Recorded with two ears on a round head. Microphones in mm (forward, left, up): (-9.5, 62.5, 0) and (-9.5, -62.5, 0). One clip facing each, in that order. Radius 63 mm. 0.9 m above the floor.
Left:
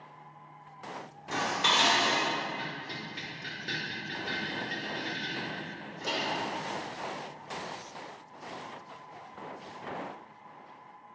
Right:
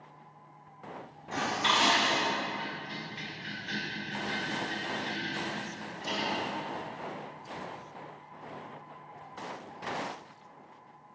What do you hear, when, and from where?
1.3 s dishes clattering: 65° left (ahead or behind), 1.8 m